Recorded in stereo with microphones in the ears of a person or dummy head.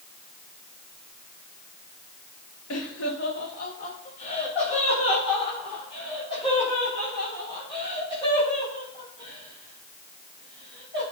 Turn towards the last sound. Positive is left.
turn(degrees=25)  # may be behind; listen again after turning